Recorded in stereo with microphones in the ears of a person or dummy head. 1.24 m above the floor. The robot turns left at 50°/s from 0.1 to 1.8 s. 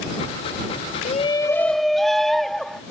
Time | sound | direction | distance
1.1 | a shout | 35° left | ?